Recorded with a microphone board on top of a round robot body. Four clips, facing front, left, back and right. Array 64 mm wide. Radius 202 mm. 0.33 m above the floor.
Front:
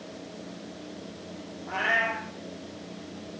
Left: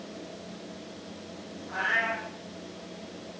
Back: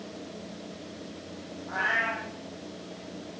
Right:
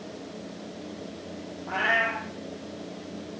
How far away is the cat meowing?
About 4 m.